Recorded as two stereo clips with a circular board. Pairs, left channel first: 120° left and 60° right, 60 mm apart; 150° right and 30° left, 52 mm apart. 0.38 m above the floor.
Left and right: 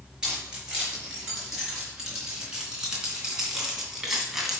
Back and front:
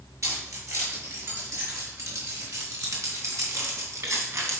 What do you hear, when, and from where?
0.2 s keys jangling: 15° left, 5 m; by 4.6 s 25° left, 2 m